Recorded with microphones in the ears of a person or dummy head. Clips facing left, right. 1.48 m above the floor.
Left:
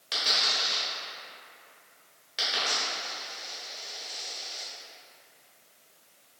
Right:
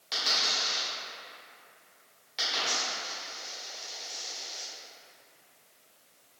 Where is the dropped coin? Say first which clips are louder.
Left 1 dB; 5° left (ahead or behind), 1.9 m.